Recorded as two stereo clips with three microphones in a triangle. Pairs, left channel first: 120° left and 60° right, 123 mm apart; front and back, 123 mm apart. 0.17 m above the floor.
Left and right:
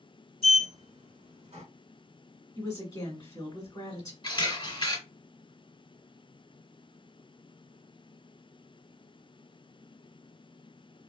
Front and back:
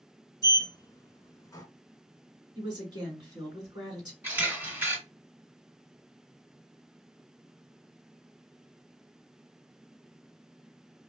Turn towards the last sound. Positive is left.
turn(degrees=115)